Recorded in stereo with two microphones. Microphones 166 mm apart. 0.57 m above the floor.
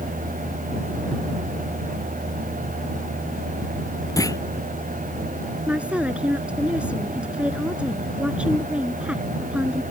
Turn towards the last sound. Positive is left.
turn(degrees=-5)  # may be behind; listen again after turning